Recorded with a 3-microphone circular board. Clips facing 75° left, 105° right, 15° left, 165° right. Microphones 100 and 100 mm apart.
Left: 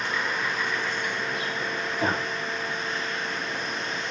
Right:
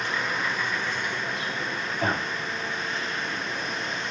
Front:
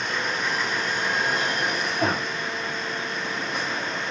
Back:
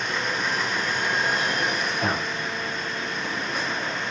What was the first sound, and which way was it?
A man speaking, straight ahead.